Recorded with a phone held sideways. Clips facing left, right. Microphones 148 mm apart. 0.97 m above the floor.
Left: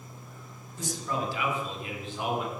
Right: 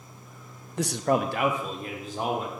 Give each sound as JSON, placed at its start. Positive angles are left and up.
{"t": 0.8, "sound": "a man speaking", "side_deg": -70, "distance_m": 0.8}